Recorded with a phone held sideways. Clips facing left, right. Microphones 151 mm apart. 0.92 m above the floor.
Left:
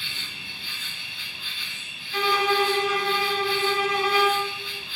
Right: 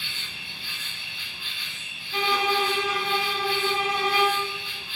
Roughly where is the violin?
Right.